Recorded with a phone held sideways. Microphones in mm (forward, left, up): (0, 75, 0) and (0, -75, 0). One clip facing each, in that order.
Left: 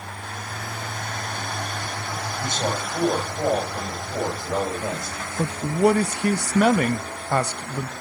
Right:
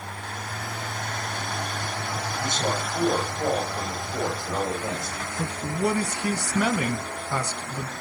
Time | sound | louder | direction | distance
2.4 | a man speaking | left 1 dB | 55° left (ahead or behind) | 8 m
5.4 | a man speaking | left 7 dB | 70° left (ahead or behind) | 0.5 m